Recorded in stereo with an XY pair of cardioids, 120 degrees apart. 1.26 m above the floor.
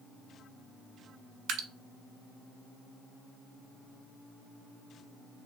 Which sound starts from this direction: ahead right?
Dripping, at 1.5 s.